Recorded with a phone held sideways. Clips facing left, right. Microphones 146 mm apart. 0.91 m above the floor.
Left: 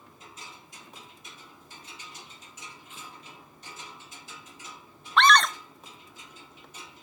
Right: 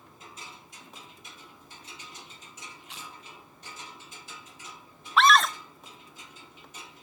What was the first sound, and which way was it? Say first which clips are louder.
Chewing: right 3 dB; 70° right (ahead or behind).